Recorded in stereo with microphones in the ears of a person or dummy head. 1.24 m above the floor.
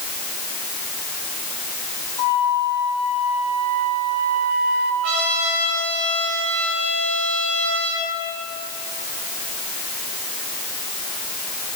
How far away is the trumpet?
About 3.5 m.